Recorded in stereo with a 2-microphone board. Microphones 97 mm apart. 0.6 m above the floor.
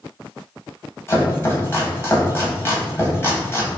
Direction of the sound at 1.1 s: 25° left (ahead or behind).